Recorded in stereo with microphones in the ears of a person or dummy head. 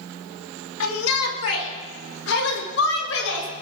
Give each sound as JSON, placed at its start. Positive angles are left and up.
{"t": 0.8, "sound": "a shout", "side_deg": 85, "distance_m": 2.5}